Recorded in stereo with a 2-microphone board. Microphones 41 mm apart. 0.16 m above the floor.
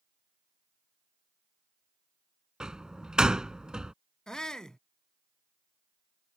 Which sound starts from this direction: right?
A door slam, at 2.6 s.